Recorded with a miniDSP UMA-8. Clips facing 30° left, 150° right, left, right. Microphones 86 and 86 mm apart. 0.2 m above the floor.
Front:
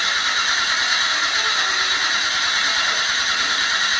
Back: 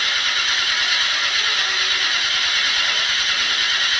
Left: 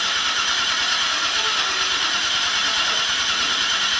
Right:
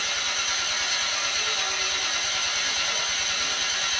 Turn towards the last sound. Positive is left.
turn(degrees=95)